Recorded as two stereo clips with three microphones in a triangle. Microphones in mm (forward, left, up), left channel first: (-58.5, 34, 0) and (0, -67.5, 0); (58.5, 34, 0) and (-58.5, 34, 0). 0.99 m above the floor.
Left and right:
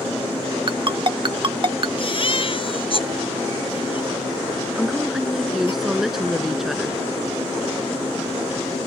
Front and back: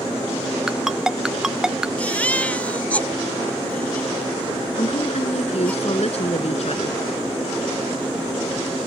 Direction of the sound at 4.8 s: 25° left.